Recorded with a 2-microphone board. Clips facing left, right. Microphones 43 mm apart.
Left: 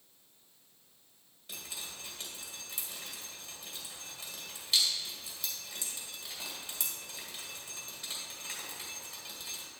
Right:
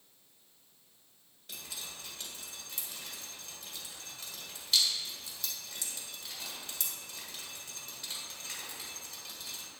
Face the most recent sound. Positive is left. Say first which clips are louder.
# left 1 dB
turn(degrees=5)  # may be behind; listen again after turning